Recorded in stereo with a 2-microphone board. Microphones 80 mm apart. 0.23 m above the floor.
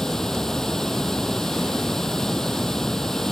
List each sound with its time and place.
0.0 s running water: 5° left (ahead or behind)